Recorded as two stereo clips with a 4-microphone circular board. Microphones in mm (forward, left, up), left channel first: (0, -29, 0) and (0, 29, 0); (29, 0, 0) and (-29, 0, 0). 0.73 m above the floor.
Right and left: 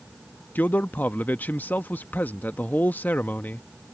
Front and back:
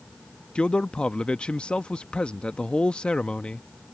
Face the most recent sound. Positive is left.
turn(degrees=-60)